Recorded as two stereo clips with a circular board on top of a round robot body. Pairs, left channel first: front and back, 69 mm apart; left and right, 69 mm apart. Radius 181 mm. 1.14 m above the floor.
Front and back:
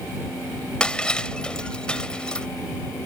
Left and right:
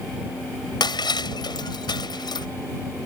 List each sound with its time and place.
0.8 s breaking glass: 80° left